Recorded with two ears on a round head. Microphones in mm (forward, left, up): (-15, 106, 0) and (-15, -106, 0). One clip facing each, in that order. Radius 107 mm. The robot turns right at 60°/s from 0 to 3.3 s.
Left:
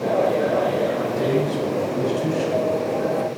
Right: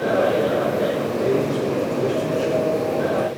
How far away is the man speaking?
About 2.5 m.